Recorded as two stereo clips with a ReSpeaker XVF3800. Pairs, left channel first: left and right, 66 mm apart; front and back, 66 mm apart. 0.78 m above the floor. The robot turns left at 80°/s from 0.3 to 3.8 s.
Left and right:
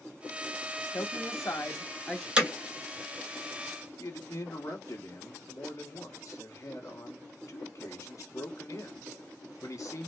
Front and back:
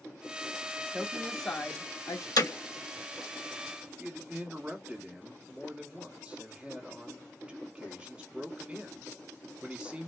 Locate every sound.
0.9 s a woman speaking: 115° left, 0.8 m; by 2.3 s 10° left, 0.8 m
2.4 s hammering: 15° right, 1.8 m; by 2.5 s 25° right, 1.8 m
4.0 s a man speaking: 110° left, 1.3 m